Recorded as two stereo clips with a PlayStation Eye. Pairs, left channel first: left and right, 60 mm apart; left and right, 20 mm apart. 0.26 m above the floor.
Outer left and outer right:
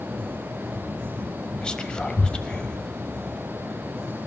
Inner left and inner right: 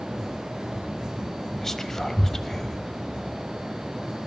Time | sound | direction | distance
1.6 | whispering | 15° left (ahead or behind) | 1.0 m